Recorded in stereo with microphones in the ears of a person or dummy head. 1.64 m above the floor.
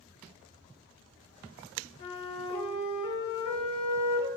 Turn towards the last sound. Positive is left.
turn(degrees=30)  # may be behind; listen again after turning